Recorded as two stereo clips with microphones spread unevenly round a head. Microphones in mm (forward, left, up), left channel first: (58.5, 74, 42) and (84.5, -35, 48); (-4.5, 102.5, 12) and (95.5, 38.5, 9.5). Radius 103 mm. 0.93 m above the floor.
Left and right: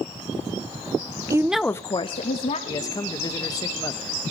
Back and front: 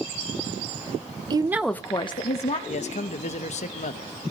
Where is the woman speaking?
25° right, 0.7 m; by 2.6 s 125° left, 1.4 m.